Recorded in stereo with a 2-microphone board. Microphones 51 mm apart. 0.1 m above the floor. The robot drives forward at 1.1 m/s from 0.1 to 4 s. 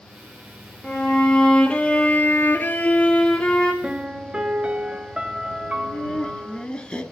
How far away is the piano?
About 0.6 m.